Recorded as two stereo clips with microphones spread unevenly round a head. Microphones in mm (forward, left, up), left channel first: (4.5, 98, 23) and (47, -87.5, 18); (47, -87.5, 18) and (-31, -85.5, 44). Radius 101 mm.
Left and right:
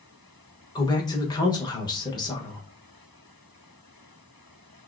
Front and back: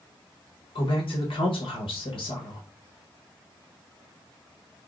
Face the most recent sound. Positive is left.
turn(degrees=35)